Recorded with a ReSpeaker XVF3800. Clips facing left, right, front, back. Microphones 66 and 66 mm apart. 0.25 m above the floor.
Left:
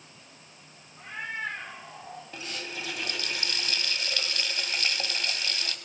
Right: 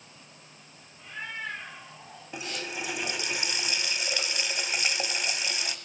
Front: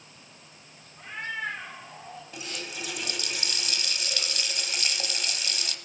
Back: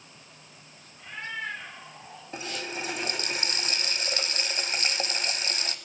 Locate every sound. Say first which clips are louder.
1.0 s a cat meowing: left 3 dB, front 2 dB; 70° left, 8 m; by 2.2 s 65° left, 7.5 m
2.3 s a running tap: right 4 dB, back 5 dB; 150° right, 1.1 m